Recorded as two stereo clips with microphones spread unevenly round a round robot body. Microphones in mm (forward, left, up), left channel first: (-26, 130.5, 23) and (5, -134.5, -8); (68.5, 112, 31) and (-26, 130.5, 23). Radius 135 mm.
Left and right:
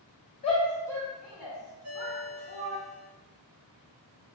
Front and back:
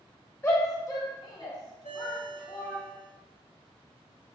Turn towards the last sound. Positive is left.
turn(degrees=-45)